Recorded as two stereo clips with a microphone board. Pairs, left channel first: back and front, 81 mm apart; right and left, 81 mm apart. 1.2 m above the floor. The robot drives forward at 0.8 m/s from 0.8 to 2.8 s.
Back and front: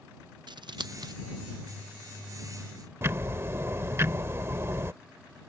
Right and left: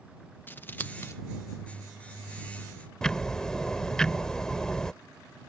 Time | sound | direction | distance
0.5 | scissors | 25° right | ?
3.0 | ticking | 10° right | ?